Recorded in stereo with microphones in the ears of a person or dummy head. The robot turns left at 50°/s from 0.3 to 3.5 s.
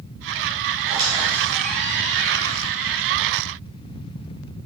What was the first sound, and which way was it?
A squeak, 150° right.